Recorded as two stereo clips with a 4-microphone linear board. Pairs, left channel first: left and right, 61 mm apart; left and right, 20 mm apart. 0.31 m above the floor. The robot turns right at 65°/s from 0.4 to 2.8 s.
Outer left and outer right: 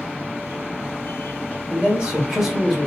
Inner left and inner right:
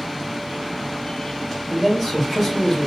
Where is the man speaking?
25° right (ahead or behind), 1.4 m; by 2.9 s centre (ahead or behind), 1.4 m.